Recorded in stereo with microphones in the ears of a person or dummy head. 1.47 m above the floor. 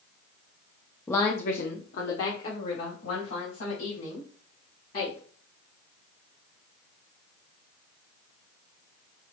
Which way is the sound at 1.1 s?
10° left (ahead or behind).